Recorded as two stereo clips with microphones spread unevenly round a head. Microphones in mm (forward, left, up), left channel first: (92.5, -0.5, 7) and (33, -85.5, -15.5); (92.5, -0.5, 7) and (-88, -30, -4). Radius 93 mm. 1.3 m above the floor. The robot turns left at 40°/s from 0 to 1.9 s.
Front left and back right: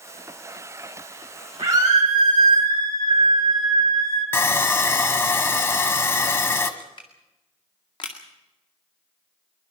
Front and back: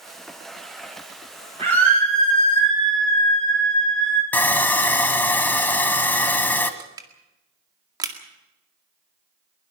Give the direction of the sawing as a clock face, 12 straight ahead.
9 o'clock.